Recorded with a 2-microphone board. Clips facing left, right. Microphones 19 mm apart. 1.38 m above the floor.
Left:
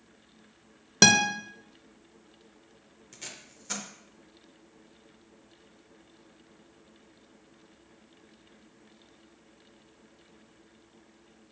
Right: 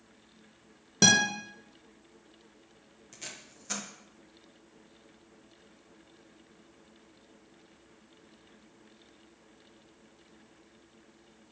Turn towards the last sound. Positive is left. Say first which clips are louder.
# left 1 dB
turn(degrees=5)  # may be behind; listen again after turning